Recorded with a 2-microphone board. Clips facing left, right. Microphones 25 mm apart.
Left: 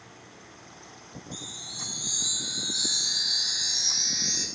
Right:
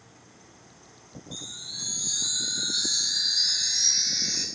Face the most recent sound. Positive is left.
turn(degrees=-80)